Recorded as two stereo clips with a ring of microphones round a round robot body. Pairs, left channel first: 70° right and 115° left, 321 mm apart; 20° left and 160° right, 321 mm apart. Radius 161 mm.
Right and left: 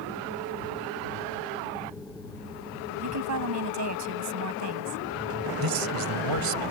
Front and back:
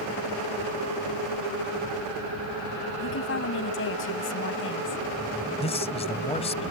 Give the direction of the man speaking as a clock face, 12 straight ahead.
9 o'clock.